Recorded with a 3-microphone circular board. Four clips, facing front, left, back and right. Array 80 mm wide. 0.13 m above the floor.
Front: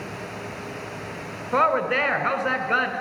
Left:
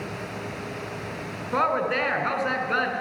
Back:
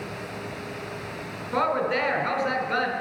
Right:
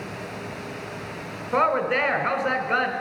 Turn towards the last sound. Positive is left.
turn(degrees=-10)